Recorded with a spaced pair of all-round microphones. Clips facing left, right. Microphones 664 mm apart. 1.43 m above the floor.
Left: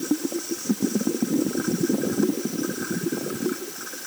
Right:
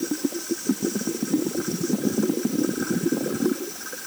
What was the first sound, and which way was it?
Only background noise.